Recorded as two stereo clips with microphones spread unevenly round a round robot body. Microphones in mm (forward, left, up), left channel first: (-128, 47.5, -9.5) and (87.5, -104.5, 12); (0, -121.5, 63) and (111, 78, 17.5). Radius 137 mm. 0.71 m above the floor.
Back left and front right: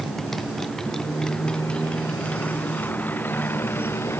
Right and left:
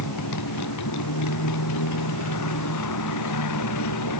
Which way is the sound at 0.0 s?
125° right.